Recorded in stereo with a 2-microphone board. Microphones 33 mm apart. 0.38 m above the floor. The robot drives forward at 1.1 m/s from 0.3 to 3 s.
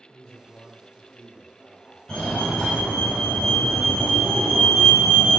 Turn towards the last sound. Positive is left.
turn(degrees=15)  # may be behind; listen again after turning